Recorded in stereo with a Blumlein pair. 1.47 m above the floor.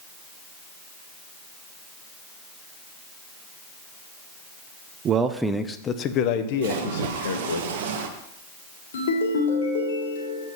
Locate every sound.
5.0 s a man speaking: 30° right, 0.7 m; by 7.6 s 65° left, 1.8 m
6.6 s a splash: 55° right, 1.2 m
8.9 s a ringtone: 65° left, 2.5 m